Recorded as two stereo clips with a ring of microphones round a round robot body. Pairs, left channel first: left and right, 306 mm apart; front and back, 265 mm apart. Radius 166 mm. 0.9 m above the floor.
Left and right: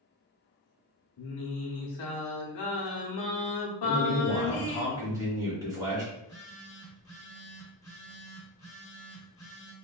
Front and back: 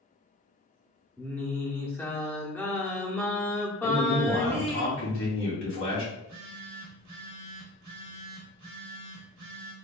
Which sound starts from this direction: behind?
A phone buzzing, at 6.1 s.